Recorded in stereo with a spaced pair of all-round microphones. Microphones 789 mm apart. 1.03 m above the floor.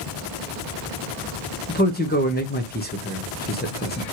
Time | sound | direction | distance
1.7 | a man speaking | 15° left (ahead or behind) | 0.8 m